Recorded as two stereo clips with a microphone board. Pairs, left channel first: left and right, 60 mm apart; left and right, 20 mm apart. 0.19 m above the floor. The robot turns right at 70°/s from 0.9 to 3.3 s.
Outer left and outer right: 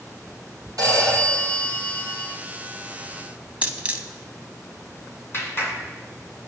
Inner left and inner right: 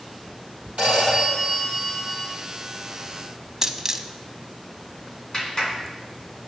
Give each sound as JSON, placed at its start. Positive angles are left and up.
{"t": 0.8, "sound": "a phone ringing", "azimuth_deg": -80, "distance_m": 4.0}
{"t": 3.6, "sound": "a dropped coin", "side_deg": -20, "distance_m": 0.6}
{"t": 5.3, "sound": "a clap", "side_deg": 40, "distance_m": 1.9}